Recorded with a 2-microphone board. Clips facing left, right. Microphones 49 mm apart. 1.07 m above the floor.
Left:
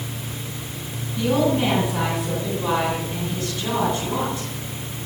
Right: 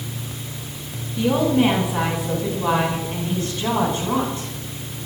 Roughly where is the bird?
No bird in this recording.